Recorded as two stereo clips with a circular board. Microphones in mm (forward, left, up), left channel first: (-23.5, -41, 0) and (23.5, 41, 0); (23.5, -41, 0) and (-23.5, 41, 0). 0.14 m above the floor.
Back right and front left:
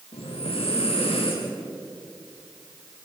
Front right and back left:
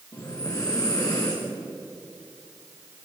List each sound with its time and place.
0.1 s breathing: 115° right, 7.5 m